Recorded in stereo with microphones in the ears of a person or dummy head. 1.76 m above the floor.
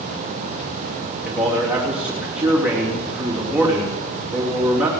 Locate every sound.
1.2 s a man speaking: 5° right (ahead or behind), 4 m